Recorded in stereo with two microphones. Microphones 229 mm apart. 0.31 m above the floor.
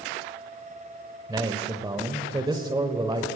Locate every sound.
1.3 s a man speaking: 20° right (ahead or behind), 0.9 m